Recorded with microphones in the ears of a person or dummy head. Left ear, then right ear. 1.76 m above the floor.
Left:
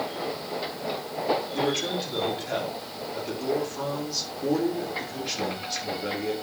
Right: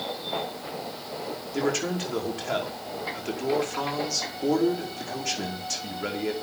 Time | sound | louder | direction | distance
1.5 | a man speaking | left 1 dB | 45° right (ahead or behind) | 5.5 m